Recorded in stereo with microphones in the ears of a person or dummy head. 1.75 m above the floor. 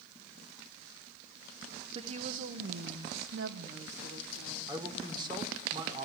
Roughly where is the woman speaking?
Right.